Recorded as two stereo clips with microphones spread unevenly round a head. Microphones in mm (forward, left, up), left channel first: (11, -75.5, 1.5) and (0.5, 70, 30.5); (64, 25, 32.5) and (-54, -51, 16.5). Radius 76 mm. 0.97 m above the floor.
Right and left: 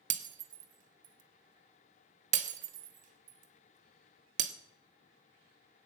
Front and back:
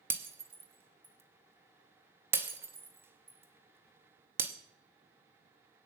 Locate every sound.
0.1 s breaking glass: 135° left, 1.1 m